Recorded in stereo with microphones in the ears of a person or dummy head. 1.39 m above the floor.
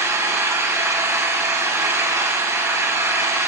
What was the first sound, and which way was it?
An engine running, 15° right (ahead or behind).